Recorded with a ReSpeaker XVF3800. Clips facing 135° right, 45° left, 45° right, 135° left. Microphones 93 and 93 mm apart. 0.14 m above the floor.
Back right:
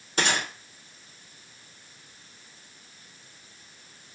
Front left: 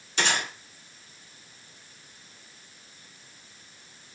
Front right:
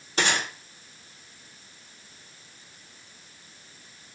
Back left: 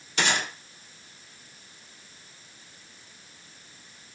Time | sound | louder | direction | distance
0.2 | a gunshot | back right 1 dB, front right 1 dB | 95° right | 2.5 m